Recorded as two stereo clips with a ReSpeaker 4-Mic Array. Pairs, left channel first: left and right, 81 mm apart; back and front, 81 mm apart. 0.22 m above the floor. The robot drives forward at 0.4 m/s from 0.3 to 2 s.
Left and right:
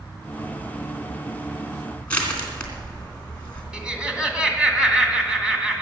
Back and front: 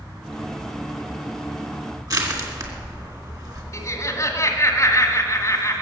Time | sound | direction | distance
2.1 | crushing | 20° left | 3 m
3.7 | laughter | 165° right | 2 m